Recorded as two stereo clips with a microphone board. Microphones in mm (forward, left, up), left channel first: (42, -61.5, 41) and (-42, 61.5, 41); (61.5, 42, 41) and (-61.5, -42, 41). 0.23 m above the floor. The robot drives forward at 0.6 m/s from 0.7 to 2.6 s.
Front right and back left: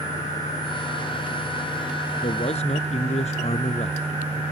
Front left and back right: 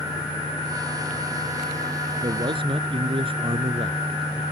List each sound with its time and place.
2.2 s a man speaking: 90° right; by 4.4 s 95° right